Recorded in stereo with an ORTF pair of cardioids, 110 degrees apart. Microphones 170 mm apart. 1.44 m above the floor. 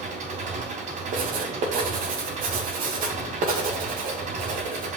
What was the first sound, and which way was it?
An engine running, 55° right.